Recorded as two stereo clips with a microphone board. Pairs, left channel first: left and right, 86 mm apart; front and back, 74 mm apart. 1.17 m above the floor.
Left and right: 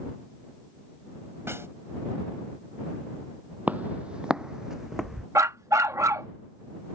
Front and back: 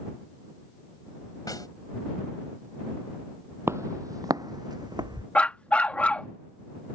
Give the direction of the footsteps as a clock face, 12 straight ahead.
5 o'clock.